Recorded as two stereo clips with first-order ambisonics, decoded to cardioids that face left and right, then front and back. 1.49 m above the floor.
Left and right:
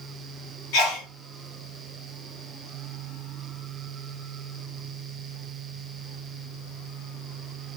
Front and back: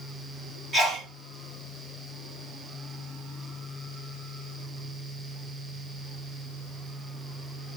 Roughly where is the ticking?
No ticking in this recording.